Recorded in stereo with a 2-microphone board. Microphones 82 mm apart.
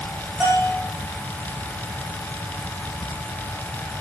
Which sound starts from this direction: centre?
A bell, at 0.4 s.